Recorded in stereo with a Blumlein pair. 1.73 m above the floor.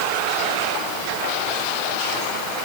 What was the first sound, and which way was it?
Only background noise.